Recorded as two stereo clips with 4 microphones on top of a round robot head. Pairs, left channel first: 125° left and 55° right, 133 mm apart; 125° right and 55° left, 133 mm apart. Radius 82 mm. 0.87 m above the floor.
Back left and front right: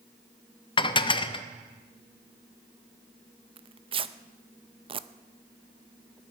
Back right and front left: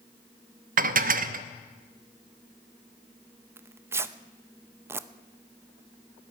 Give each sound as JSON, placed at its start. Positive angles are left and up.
{"t": 0.8, "sound": "dishes clattering", "azimuth_deg": 70, "distance_m": 0.7}
{"t": 3.6, "sound": "tearing paper", "azimuth_deg": -15, "distance_m": 0.6}